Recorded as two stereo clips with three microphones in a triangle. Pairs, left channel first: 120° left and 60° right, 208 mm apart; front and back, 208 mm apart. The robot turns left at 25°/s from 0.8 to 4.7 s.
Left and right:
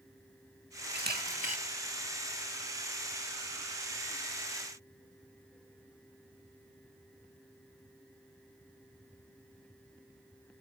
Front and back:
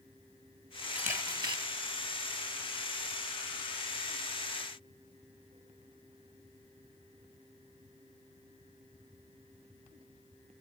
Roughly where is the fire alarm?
I don't hear a fire alarm.